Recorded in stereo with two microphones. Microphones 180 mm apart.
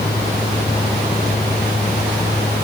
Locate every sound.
Only background noise.